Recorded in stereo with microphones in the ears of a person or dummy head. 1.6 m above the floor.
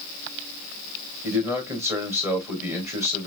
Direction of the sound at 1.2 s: 10° right (ahead or behind).